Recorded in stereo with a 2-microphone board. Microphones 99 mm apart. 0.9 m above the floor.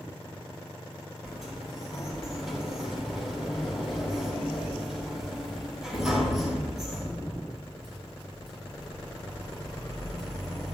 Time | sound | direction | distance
1.2 | a sliding door | 5° right (ahead or behind) | 4 m